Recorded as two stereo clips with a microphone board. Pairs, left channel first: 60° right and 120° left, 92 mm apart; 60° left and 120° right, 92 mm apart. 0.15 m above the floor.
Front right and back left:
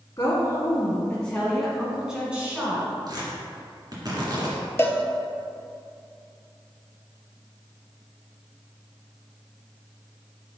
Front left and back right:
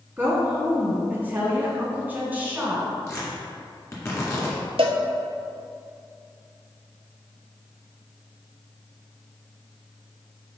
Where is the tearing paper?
105° left, 2.0 m.